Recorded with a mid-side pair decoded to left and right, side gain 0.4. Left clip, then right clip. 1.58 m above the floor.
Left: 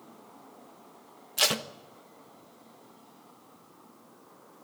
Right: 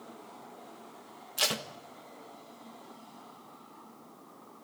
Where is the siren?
No siren in this recording.